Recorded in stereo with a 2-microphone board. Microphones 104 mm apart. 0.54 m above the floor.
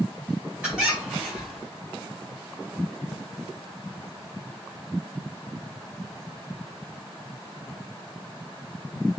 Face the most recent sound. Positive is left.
turn(degrees=-10)  # may be behind; listen again after turning